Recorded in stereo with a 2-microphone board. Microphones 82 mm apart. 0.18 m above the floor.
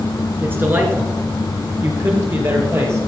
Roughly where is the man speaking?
Right.